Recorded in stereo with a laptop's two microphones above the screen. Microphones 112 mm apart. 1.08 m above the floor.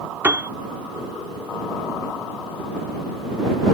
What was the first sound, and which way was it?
A piano, 20° right (ahead or behind).